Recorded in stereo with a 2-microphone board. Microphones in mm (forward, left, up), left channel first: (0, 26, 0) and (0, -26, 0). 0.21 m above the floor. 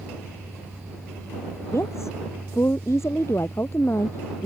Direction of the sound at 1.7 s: 65° left (ahead or behind).